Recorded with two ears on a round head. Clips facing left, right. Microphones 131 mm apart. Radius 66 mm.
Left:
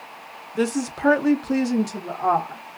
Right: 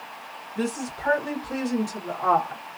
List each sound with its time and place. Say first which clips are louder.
0.6 s a woman speaking: left 6 dB; 75° left (ahead or behind), 1.0 m; by 2.6 s 15° left (ahead or behind), 1.3 m